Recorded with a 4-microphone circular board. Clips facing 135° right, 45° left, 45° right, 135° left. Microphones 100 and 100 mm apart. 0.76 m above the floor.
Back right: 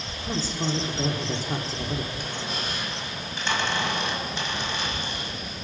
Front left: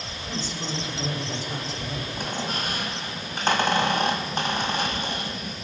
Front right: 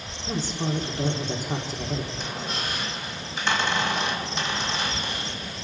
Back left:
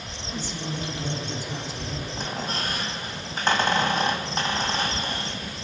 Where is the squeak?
85° left, 2 m.